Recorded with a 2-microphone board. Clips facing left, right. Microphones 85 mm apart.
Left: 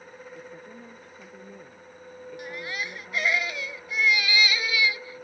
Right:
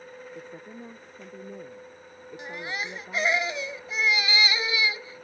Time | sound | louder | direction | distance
0.3 | a woman speaking | right 1 dB | 20° right (ahead or behind) | ?
2.4 | a baby crying | right 1 dB | 20° right (ahead or behind) | ?